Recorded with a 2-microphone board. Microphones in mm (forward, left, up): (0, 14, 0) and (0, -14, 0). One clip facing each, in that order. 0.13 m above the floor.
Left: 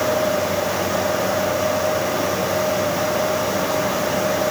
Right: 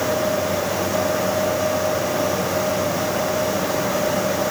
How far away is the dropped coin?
No dropped coin in this recording.